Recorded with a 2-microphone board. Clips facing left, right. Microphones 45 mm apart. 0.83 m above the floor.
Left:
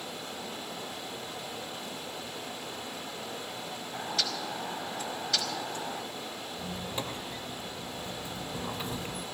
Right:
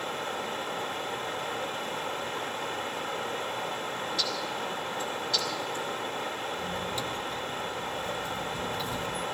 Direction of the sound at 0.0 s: 50° right (ahead or behind).